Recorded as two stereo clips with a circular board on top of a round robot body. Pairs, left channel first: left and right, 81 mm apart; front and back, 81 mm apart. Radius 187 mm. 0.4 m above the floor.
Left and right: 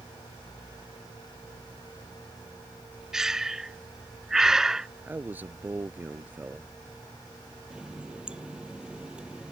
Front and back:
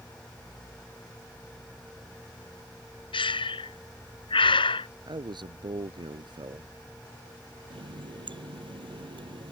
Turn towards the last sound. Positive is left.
turn(degrees=-170)